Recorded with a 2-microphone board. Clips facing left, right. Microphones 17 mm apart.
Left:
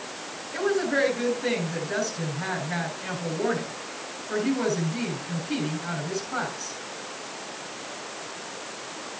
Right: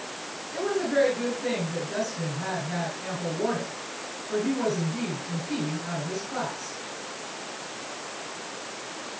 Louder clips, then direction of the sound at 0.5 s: Even; 30° left (ahead or behind).